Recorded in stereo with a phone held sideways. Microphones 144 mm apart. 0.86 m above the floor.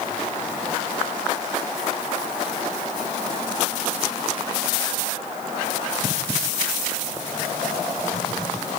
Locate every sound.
Only background noise.